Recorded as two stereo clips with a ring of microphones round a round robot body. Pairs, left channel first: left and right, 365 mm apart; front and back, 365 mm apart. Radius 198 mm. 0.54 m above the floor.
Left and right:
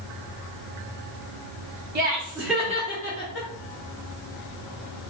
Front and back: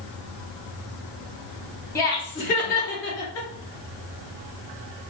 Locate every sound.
1.9 s laughter: 75° right, 0.8 m; by 3.5 s 45° left, 1.0 m